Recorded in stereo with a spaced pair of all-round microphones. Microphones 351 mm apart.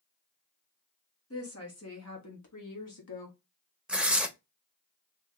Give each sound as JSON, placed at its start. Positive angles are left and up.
{"t": 1.3, "sound": "a woman speaking", "side_deg": 40, "distance_m": 1.5}
{"t": 3.9, "sound": "tearing paper", "side_deg": 0, "distance_m": 0.6}